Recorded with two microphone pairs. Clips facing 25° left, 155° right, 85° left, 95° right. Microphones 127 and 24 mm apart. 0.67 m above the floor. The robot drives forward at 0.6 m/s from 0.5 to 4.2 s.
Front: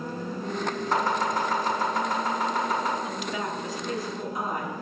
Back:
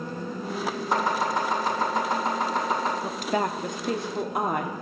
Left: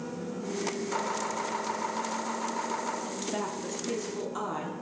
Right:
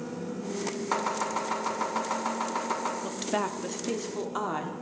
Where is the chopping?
80° right, 4 m; by 2.9 s 100° right, 4 m.